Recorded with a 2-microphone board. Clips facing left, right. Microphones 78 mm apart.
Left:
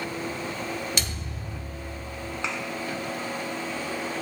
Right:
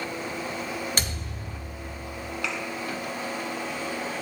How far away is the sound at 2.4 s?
About 1.9 m.